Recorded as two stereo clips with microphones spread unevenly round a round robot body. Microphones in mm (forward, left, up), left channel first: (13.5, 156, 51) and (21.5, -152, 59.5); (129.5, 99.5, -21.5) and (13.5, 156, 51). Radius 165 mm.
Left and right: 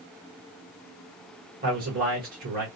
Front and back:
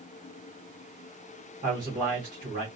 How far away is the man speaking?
About 1.6 m.